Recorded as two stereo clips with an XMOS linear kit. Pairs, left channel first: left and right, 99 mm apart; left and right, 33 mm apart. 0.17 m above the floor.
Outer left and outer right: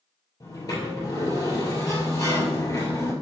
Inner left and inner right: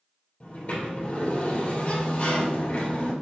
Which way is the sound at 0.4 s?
35° left (ahead or behind).